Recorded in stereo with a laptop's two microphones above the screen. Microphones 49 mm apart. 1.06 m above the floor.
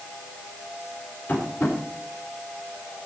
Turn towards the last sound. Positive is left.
turn(degrees=40)  # may be behind; listen again after turning